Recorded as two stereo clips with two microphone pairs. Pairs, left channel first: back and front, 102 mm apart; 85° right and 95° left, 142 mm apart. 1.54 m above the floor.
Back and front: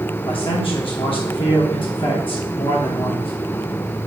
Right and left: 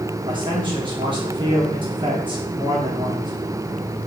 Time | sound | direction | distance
0.2 | a man speaking | 150° left | 1.7 m